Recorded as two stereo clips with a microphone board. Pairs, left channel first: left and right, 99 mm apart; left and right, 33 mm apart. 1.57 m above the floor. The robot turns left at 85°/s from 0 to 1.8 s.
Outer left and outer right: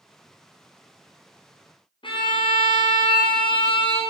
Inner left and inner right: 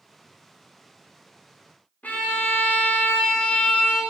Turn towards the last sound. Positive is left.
turn(degrees=55)  # may be behind; listen again after turning